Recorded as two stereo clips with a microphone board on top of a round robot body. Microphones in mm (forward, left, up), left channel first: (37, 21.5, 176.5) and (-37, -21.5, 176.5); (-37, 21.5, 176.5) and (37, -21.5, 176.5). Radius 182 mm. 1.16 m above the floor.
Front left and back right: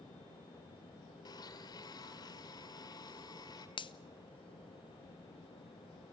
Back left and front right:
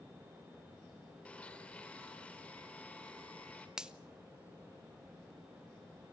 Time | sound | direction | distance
1.2 | a blender | 75° left | 2 m
3.8 | a finger snap | 50° left | 1.0 m